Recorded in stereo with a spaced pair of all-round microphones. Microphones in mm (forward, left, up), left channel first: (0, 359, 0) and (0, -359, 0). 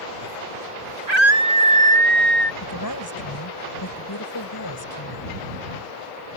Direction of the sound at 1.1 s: 60° right (ahead or behind).